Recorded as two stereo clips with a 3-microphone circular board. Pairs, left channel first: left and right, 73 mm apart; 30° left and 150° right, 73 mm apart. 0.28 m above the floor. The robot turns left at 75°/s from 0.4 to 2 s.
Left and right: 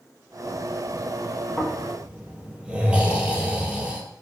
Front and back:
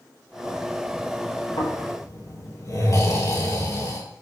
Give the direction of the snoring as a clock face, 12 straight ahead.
11 o'clock.